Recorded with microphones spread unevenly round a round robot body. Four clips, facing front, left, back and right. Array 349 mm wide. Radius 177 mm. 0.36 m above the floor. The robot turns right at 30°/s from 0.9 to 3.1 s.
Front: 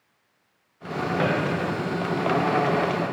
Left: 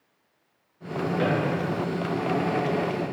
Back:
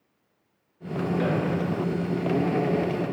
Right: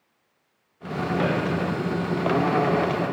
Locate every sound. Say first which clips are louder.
1.2 s a drawer: right 1 dB, front 3 dB; 25° right, 1.0 m; by 1.3 s 20° right, 1.0 m